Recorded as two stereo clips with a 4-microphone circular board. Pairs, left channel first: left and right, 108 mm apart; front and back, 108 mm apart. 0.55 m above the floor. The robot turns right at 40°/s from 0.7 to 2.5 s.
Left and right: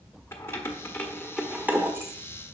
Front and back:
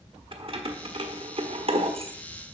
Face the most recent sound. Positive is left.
turn(degrees=-135)